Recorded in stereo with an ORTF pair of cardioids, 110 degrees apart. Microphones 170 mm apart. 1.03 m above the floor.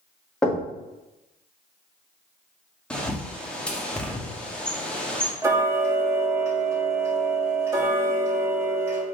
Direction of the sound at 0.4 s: 5° left.